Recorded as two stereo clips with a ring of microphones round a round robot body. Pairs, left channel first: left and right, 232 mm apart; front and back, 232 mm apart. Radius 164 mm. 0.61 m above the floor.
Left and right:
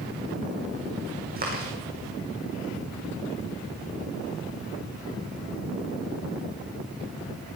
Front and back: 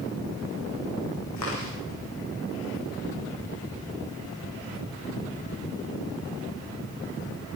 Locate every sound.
1.4 s chewing: 40° right, 5.5 m